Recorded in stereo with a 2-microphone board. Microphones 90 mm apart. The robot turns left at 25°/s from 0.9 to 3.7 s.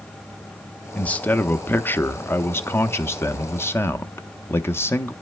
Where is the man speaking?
15° left (ahead or behind), 0.6 m; by 5.1 s 25° left (ahead or behind), 0.6 m.